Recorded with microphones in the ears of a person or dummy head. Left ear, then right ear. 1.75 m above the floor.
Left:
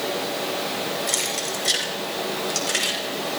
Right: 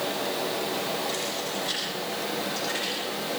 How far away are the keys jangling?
About 5.5 m.